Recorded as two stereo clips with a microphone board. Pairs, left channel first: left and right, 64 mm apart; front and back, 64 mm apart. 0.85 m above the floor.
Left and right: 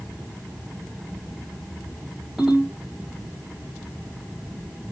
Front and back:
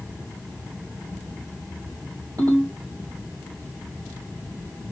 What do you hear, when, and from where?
2.4 s a ringtone: 175° right, 1.9 m